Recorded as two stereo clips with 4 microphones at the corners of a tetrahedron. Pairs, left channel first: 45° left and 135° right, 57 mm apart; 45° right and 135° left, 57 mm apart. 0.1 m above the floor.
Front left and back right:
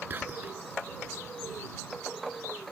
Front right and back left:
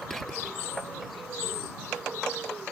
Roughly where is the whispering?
Behind right.